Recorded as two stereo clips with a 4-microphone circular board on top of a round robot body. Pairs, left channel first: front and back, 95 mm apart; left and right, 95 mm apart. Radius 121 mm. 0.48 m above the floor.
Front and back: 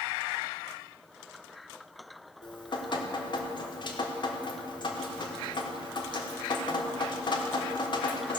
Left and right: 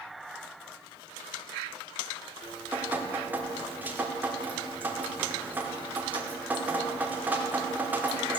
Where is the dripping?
20° right, 1.5 m.